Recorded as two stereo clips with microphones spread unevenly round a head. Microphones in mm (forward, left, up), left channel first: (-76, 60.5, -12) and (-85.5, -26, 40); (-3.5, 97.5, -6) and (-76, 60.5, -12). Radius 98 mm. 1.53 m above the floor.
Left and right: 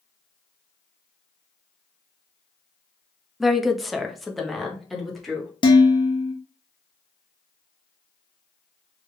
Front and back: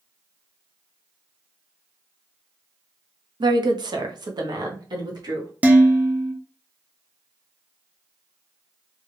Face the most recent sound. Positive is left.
turn(degrees=135)